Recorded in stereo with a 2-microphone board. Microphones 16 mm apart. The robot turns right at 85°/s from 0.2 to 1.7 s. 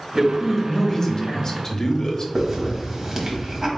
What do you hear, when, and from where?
0.1 s a man speaking: 20° right, 0.8 m; by 2.2 s 105° left, 0.8 m
2.4 s a hiss: 30° right (ahead or behind), 1.1 m